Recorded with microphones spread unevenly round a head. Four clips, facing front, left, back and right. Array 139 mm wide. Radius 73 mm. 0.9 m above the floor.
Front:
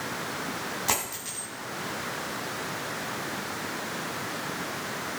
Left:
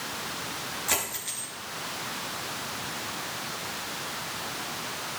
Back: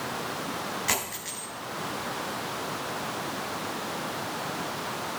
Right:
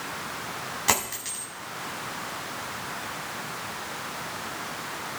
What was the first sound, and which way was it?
A dropped coin, 70° right.